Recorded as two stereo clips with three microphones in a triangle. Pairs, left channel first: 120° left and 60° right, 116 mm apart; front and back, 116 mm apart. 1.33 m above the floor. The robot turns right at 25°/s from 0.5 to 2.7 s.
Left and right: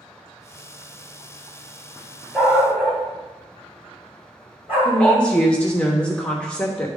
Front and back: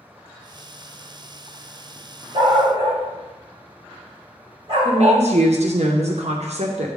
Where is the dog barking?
145° right, 3 m; by 5.2 s 135° right, 3 m.